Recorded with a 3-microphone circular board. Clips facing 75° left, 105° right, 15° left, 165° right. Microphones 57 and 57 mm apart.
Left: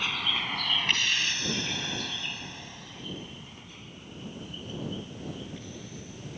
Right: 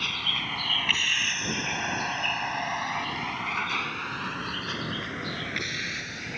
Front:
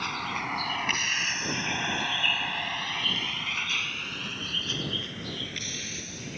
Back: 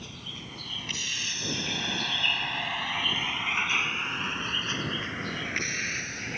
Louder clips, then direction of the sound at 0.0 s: Even, front 12 dB; 10° right.